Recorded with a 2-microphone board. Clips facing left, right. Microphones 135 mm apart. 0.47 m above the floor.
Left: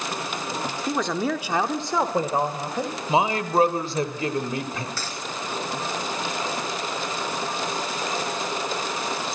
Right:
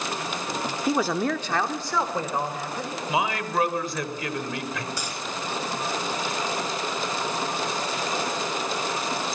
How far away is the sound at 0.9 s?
About 1.1 m.